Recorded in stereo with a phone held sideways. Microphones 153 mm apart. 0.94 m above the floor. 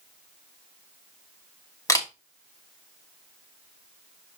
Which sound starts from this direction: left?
A camera shutter, at 1.9 s.